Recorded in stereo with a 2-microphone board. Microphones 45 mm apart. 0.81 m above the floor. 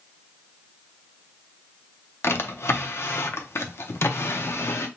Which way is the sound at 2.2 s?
70° left (ahead or behind).